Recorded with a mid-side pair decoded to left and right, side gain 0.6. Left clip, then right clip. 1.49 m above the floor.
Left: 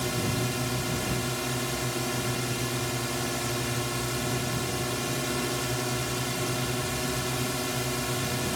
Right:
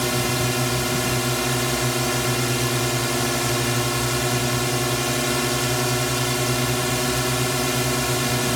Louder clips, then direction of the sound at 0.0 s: Right 7 dB; 40° right.